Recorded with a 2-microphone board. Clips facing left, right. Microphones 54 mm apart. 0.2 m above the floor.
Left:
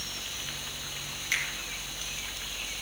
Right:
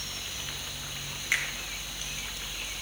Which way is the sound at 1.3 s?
20° right (ahead or behind).